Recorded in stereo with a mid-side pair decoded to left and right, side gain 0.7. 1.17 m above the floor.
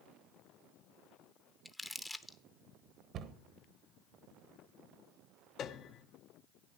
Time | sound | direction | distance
1.6 | crumpling | 5° left | 0.8 m
3.1 | a cupboard door | 50° right | 1.1 m
5.6 | a piano | 45° left | 0.8 m